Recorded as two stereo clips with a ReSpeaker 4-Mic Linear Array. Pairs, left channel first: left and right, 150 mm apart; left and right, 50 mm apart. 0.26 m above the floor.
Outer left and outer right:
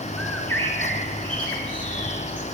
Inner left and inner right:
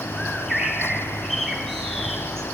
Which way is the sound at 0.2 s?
5° left (ahead or behind).